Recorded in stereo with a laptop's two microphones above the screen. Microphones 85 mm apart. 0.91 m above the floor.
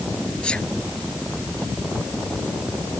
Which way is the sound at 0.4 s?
10° left (ahead or behind).